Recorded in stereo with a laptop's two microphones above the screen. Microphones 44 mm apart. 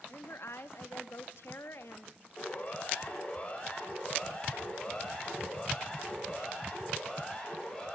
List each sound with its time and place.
0.1 s a woman speaking: 65° left (ahead or behind), 1.9 m
2.4 s a siren: 30° left (ahead or behind), 6 m; by 7.9 s 10° left (ahead or behind), 8.5 m